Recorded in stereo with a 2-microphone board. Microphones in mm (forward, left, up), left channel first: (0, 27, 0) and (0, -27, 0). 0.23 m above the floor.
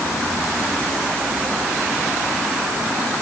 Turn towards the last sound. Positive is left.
No sound to turn to.